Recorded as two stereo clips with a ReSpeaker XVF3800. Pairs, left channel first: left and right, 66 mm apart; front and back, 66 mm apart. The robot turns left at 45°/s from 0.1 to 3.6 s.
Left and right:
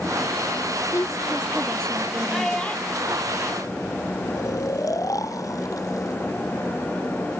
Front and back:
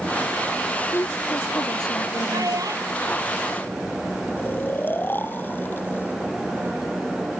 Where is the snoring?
60° left.